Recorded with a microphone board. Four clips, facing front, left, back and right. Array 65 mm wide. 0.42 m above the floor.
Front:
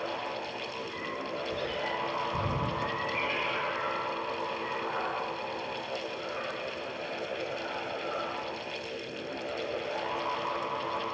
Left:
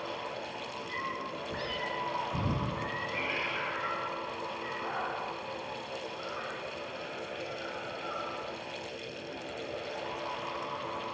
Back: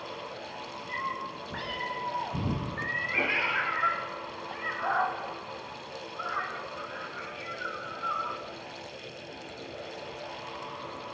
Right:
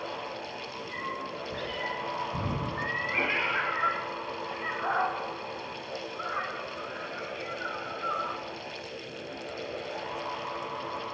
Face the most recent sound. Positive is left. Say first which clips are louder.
# right 5 dB, back 1 dB
turn(degrees=-140)